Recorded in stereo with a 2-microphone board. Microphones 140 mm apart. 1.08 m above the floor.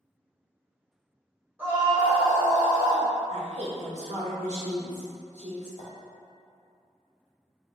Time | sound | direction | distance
1.6 | a scream | 15° right (ahead or behind) | 2.0 m
3.3 | a woman speaking | 65° right (ahead or behind) | 1.1 m
5.8 | a clink | 65° left (ahead or behind) | 1.1 m